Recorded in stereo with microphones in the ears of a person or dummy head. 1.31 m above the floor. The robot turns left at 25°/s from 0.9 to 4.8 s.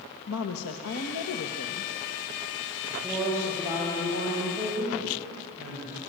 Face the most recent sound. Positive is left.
turn(degrees=-55)